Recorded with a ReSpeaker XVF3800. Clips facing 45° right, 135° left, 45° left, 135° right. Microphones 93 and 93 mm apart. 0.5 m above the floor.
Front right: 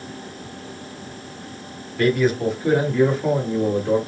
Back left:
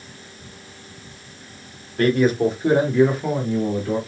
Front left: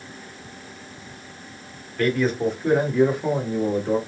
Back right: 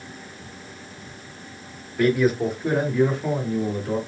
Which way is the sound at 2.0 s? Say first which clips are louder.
Back left 1 dB, back right 2 dB; 150° left.